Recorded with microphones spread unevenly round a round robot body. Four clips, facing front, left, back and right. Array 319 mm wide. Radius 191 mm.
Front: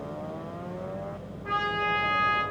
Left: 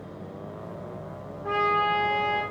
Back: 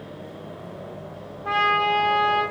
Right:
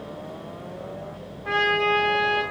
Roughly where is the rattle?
I don't hear a rattle.